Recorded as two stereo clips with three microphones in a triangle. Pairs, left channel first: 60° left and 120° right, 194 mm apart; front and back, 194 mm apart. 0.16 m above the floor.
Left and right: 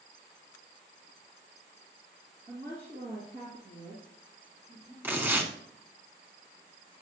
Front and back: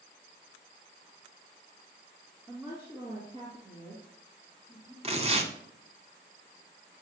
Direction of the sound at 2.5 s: 110° right.